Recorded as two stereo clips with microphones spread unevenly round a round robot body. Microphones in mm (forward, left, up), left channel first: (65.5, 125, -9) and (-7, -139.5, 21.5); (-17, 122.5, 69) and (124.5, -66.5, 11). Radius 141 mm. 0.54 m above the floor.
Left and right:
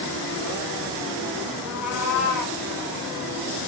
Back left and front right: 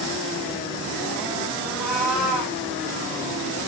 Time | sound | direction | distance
1.6 | a cat meowing | 35° left | 8.5 m